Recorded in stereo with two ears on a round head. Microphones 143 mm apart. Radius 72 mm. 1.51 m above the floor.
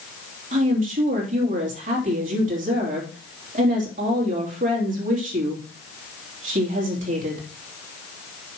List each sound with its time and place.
0.5 s a woman speaking: 60° right (ahead or behind), 3 m